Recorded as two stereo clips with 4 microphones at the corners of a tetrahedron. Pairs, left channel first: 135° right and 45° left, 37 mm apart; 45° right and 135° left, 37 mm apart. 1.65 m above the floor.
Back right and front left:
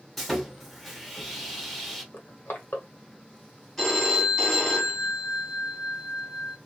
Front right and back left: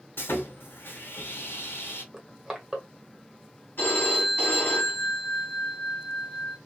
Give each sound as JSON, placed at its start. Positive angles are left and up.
{"t": 0.2, "sound": "sawing", "azimuth_deg": -50, "distance_m": 0.9}
{"t": 2.1, "sound": "crushing", "azimuth_deg": -145, "distance_m": 1.0}
{"t": 3.8, "sound": "a phone ringing", "azimuth_deg": -60, "distance_m": 1.8}